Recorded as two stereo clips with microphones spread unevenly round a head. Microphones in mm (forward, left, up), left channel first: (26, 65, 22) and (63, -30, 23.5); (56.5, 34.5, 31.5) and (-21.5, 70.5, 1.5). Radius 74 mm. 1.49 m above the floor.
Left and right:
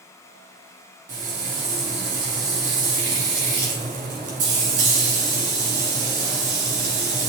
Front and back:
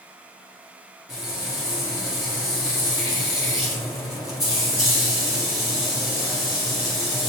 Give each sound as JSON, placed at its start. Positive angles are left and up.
{"t": 1.1, "sound": "frying", "azimuth_deg": -90, "distance_m": 2.0}